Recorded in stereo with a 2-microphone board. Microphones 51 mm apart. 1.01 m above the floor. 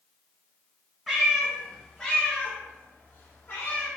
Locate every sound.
1.1 s a cat meowing: 5° right (ahead or behind), 1.2 m; by 3.9 s 55° left (ahead or behind), 1.4 m